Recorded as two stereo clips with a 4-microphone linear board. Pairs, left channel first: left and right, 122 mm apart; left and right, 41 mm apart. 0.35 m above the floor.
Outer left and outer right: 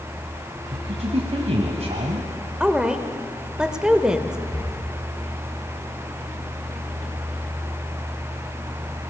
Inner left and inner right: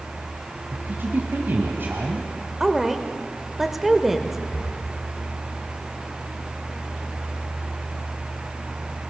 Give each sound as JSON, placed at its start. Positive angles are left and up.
{"t": 0.7, "sound": "a woman speaking", "side_deg": -60, "distance_m": 1.9}
{"t": 2.6, "sound": "a woman speaking", "side_deg": -5, "distance_m": 1.2}
{"t": 4.5, "sound": "breathing", "side_deg": 60, "distance_m": 7.5}